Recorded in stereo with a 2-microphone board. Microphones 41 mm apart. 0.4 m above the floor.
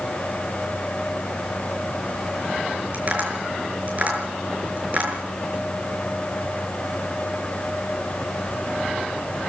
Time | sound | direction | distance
2.9 | tapping | 35° right (ahead or behind) | 6 m